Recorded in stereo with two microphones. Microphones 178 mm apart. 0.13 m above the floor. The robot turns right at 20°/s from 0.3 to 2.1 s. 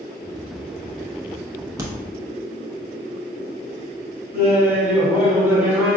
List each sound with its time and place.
1.8 s a crack: 15° right (ahead or behind), 0.7 m
4.3 s laughter: 10° right (ahead or behind), 1.5 m